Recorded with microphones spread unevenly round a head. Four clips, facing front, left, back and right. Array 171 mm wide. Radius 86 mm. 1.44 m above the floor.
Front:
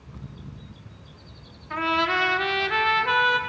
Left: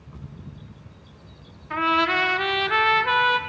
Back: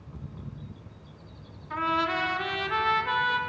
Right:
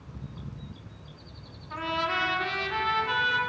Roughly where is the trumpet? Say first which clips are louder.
Left 8 dB, front 3 dB; ahead left.